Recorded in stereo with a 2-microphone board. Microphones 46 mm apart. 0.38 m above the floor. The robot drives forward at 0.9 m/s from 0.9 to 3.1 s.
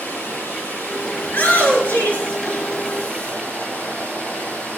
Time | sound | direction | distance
0.0 | running water | 65° left (ahead or behind) | 5 m
1.2 | a shout | 50° left (ahead or behind) | 5.5 m